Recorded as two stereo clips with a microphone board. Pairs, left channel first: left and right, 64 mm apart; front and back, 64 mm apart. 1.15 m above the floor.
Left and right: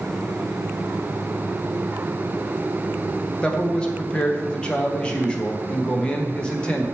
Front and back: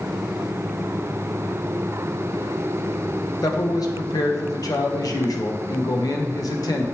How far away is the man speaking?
About 1.2 m.